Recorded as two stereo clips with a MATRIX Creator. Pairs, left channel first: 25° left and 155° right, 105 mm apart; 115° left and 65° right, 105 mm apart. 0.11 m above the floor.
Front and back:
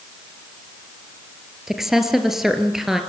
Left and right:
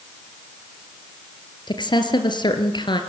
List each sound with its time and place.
1.7 s a woman speaking: 120° left, 2.5 m